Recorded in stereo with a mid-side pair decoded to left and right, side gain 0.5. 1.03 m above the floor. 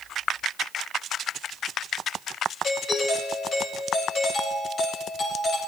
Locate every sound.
2.6 s a doorbell: 45° left, 7.5 m